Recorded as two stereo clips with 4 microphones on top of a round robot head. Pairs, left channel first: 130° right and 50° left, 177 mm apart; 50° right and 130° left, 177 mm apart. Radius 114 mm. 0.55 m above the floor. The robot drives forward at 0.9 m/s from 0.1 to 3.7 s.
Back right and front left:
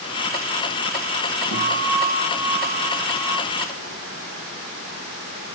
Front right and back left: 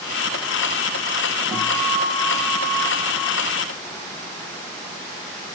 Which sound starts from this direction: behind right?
A guitar, at 1.5 s.